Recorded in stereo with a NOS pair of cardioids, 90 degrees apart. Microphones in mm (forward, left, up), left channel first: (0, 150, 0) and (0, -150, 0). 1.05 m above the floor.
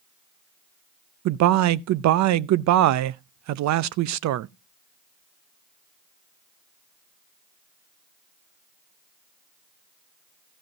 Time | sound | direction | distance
1.2 | a man speaking | 65° right | 0.6 m